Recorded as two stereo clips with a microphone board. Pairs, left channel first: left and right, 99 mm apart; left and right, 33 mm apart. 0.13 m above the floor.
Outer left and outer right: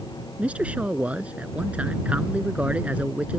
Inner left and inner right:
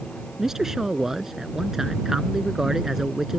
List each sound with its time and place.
0.4 s a man speaking: 15° right (ahead or behind)